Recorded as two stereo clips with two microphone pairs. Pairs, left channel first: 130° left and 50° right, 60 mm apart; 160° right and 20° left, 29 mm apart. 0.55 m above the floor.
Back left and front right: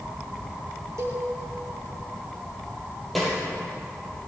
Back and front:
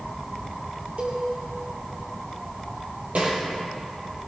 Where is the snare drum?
40° left, 5.5 m.